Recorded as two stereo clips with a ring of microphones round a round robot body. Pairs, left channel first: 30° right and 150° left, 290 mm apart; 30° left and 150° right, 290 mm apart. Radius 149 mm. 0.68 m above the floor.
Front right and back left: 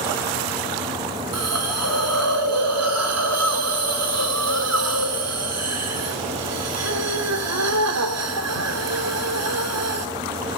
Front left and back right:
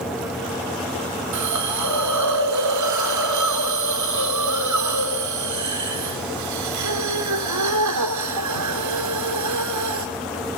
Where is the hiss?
175° right, 2.5 m.